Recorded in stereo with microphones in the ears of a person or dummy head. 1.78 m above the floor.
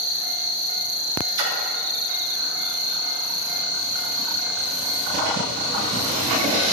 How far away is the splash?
About 3.5 m.